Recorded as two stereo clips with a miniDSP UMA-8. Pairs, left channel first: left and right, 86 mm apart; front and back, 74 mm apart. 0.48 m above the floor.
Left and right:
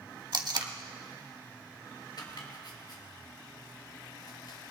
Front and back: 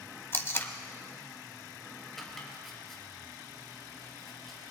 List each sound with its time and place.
0.3 s tape being pulled: 60° right, 1.0 m
2.2 s chopping: 85° left, 3 m